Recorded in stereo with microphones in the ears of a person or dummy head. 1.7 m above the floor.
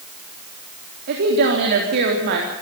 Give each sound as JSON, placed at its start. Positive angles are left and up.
{"t": 1.1, "sound": "a woman speaking", "side_deg": -55, "distance_m": 3.5}